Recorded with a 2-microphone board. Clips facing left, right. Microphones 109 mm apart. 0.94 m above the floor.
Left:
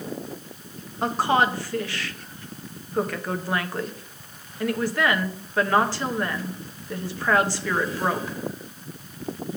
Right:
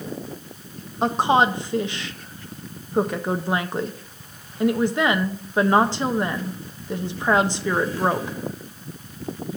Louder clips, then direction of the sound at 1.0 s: Right 3 dB; 20° right (ahead or behind).